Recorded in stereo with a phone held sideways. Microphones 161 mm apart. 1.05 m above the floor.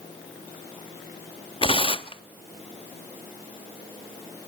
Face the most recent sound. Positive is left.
turn(degrees=35)  # may be behind; listen again after turning